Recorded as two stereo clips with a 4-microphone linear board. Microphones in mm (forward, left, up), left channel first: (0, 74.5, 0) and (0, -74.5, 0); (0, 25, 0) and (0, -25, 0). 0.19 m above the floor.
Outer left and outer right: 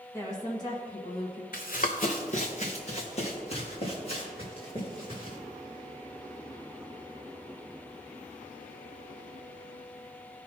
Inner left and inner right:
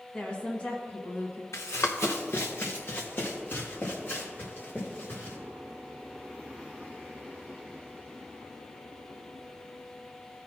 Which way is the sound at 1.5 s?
70° left (ahead or behind).